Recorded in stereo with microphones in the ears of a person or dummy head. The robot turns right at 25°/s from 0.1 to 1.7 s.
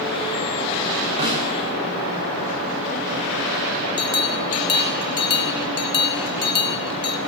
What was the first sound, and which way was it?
A snare drum, 25° right (ahead or behind).